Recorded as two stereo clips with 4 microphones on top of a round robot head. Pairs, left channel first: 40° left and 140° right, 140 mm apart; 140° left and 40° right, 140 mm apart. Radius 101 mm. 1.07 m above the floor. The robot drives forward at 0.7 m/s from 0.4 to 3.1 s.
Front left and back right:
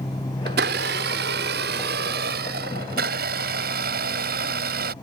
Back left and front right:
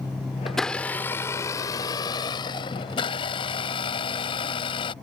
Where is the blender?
130° right; by 4.9 s 160° right.